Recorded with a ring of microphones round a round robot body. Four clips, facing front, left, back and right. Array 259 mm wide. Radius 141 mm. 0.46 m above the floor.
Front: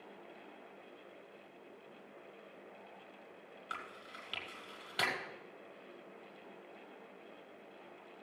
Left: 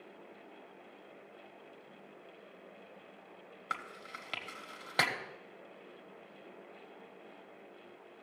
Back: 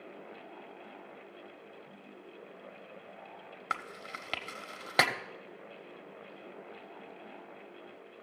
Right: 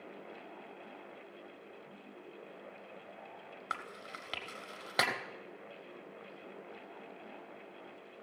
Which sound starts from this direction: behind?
Chewing, at 3.7 s.